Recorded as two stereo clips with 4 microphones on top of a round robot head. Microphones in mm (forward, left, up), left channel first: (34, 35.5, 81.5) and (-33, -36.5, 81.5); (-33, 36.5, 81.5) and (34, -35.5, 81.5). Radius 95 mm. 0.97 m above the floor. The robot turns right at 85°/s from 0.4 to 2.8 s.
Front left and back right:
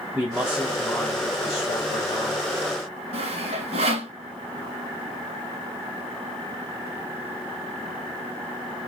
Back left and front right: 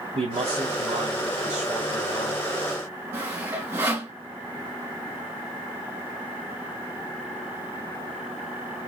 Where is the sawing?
115° right, 1.8 m.